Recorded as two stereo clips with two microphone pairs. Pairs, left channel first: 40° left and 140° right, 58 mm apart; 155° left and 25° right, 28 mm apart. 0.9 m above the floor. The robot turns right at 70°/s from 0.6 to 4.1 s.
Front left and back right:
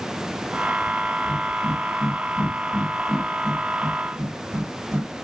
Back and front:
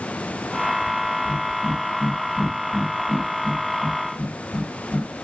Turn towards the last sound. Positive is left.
turn(degrees=-165)